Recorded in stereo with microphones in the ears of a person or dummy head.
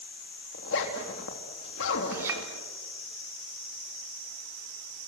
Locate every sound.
0.5 s a zipper: 70° left (ahead or behind), 3.5 m
2.1 s a clink: 15° right (ahead or behind), 3 m